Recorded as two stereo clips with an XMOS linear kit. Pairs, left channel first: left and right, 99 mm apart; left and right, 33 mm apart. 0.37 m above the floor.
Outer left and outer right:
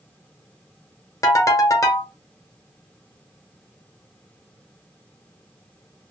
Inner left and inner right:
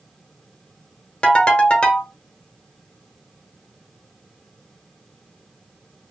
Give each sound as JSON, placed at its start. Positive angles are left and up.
{"t": 1.2, "sound": "a ringtone", "side_deg": 35, "distance_m": 0.8}